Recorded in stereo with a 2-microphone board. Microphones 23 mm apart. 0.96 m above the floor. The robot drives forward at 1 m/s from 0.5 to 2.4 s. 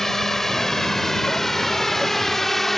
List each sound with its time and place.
0.0 s a drone: 15° left (ahead or behind); by 2.8 s 10° left (ahead or behind)